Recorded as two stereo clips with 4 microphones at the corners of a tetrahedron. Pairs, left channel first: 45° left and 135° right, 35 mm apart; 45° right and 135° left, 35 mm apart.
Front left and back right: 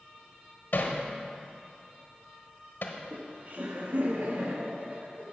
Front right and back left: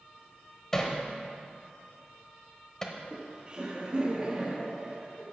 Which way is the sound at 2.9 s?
165° right.